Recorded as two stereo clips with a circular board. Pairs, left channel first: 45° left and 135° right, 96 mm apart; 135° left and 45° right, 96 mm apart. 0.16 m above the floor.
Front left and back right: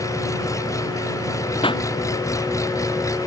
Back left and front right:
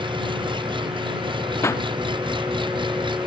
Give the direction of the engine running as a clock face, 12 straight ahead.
12 o'clock.